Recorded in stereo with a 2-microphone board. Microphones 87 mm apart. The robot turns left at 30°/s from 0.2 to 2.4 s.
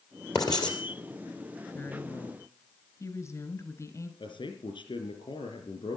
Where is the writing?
50° left (ahead or behind), 3 m; by 0.8 s 60° left (ahead or behind), 3 m.